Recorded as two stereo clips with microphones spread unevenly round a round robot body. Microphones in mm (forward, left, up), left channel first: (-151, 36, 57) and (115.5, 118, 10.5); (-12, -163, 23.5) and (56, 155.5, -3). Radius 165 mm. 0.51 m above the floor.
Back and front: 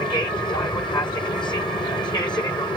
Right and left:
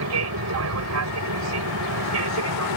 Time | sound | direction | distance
0.0 | an aircraft | 120° left | ?